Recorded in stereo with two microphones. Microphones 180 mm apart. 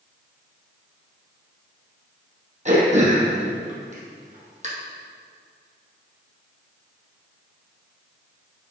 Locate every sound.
2.6 s throat clearing: 40° right (ahead or behind), 2.5 m